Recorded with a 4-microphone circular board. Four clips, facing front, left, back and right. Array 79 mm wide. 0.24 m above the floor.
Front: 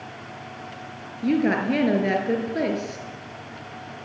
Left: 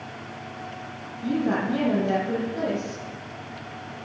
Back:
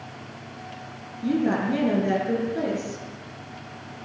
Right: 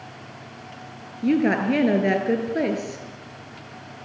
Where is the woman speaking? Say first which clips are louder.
Right 4 dB, front 2 dB; 65° right, 5 m.